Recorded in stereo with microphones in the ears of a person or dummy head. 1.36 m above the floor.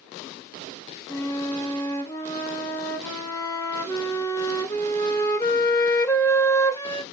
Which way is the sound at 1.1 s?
15° left (ahead or behind).